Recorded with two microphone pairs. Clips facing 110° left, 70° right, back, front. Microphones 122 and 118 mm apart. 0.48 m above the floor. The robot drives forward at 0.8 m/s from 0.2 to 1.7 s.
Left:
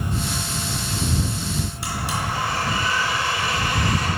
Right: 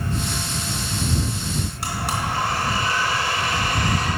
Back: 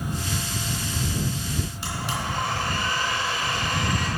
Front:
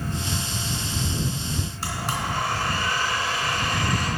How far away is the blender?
About 2.5 m.